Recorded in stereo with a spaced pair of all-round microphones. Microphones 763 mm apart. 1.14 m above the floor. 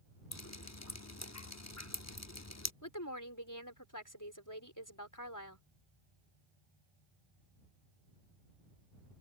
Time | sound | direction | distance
0.3 | dripping | 20° left (ahead or behind) | ?
2.8 | a woman speaking | 25° left (ahead or behind) | ?